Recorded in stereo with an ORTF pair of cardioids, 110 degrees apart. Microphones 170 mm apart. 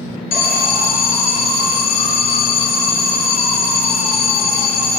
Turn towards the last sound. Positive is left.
turn(degrees=65)